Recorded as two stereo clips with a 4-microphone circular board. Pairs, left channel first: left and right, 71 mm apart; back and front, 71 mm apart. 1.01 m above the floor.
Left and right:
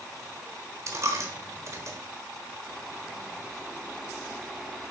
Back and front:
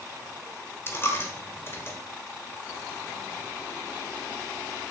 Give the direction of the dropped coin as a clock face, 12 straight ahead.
4 o'clock.